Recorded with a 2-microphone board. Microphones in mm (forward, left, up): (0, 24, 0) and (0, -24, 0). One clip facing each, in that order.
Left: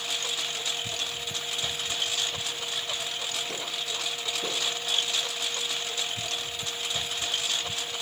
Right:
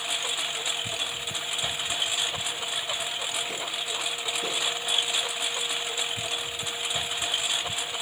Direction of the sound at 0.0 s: 15° right (ahead or behind).